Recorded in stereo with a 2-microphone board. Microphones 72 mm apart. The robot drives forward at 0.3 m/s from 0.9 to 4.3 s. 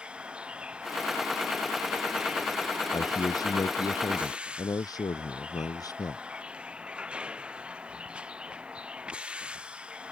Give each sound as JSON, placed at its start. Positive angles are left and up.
{"t": 0.0, "sound": "a vehicle", "side_deg": -15}
{"t": 2.9, "sound": "a man speaking", "side_deg": 65}